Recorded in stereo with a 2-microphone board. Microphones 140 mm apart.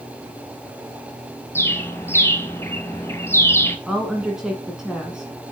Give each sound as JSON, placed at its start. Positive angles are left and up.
{"t": 1.6, "sound": "a bird", "side_deg": 15, "distance_m": 1.6}
{"t": 3.9, "sound": "a woman speaking", "side_deg": -5, "distance_m": 1.9}